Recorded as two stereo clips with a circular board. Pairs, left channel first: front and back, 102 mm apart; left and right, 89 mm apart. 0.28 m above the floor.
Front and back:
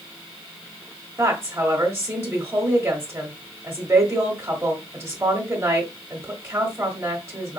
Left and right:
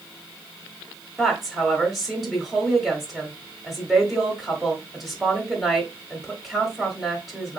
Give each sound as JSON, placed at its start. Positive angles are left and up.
{"t": 1.2, "sound": "a woman speaking", "azimuth_deg": -175, "distance_m": 1.2}